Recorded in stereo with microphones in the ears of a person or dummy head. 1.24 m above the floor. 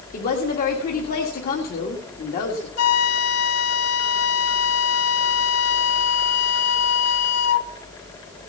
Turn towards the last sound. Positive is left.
turn(degrees=90)